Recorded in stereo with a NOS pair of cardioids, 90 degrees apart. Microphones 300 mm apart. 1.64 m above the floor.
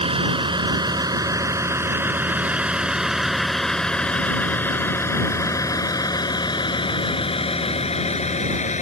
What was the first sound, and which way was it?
A vehicle, 20° right.